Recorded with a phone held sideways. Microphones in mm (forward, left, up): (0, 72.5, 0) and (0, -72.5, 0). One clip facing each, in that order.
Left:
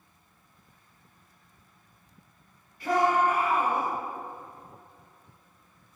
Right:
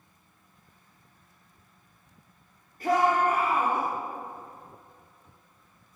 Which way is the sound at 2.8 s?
45° right (ahead or behind).